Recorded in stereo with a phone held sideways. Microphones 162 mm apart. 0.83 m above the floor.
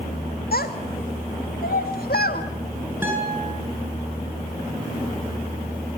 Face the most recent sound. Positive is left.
turn(degrees=-15)  # may be behind; listen again after turning